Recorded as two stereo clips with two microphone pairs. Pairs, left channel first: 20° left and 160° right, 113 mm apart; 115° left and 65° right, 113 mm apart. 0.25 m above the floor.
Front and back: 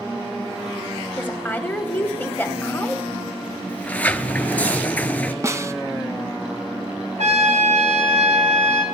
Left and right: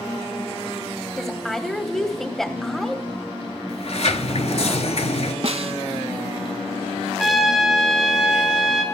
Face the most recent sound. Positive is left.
turn(degrees=-155)